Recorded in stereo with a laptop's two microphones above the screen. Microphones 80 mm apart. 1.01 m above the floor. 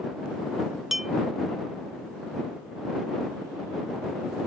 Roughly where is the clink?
Centre.